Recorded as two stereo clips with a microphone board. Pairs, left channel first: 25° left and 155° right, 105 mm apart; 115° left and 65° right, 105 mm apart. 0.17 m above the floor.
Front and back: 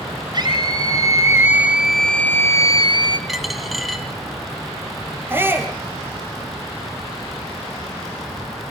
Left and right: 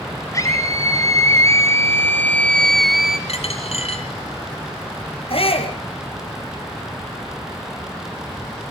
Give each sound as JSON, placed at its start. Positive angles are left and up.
{"t": 0.3, "sound": "a scream", "azimuth_deg": 165, "distance_m": 2.5}
{"t": 3.3, "sound": "a dropped coin", "azimuth_deg": 115, "distance_m": 2.5}
{"t": 5.3, "sound": "a shout", "azimuth_deg": 135, "distance_m": 4.5}